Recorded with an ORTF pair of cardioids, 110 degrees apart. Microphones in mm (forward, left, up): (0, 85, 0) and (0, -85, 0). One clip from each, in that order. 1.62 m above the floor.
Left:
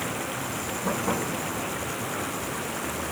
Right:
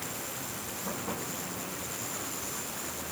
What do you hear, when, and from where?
0.0 s running water: 60° left